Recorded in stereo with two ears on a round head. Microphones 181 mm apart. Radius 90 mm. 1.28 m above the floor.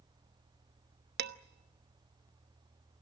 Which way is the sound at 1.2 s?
55° right (ahead or behind).